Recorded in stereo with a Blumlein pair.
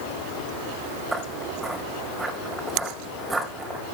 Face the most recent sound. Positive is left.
turn(degrees=-10)